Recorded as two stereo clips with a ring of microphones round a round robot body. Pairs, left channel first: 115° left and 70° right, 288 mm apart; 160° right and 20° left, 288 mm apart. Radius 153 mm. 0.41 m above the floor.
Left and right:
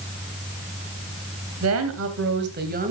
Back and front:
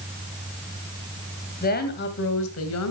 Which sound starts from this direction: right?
A woman speaking, at 1.6 s.